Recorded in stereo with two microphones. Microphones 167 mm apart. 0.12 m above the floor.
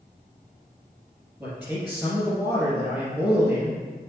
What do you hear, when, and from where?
1.4 s a man speaking: 5° right (ahead or behind), 2.5 m